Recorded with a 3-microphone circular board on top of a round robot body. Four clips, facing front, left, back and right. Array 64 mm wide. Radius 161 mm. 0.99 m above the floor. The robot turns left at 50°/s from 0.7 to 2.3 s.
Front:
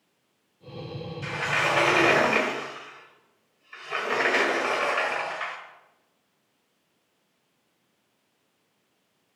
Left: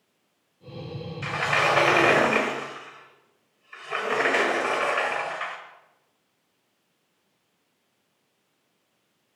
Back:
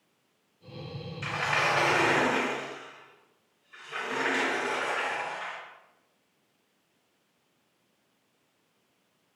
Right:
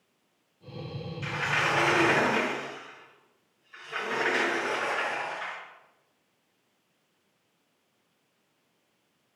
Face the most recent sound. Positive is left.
turn(degrees=60)